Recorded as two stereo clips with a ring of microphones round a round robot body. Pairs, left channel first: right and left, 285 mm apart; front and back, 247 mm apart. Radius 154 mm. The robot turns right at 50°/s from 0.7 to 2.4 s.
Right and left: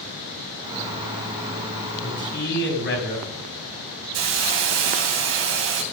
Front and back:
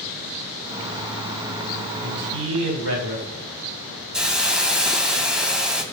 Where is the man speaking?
160° right, 4.5 m; by 3.3 s 145° right, 4.5 m.